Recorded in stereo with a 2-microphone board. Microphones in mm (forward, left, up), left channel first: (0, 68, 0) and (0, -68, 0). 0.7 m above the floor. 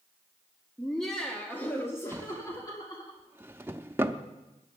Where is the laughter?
Centre (ahead or behind), 1.3 m; by 3.1 s 30° left (ahead or behind), 2 m.